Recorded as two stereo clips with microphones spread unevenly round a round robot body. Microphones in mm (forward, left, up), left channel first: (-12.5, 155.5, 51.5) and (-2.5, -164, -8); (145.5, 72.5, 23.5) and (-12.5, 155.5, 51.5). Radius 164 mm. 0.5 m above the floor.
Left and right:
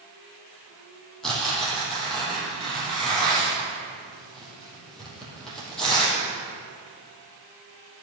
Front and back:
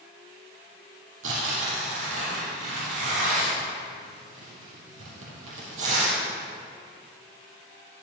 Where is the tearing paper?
Straight behind, 3.5 m.